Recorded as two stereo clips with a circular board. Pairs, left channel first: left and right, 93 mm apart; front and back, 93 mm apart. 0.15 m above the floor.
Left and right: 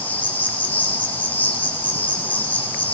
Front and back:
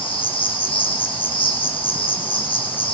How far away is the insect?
About 7.5 m.